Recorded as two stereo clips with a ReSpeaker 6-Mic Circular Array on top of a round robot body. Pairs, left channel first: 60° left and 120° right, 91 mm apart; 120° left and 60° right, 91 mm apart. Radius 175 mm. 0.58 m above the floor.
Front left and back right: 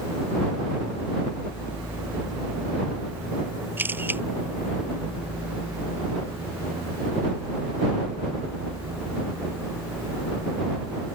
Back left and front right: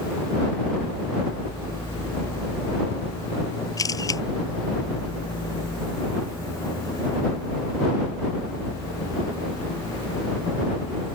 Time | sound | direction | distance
3.8 | a camera shutter | 170° left | ?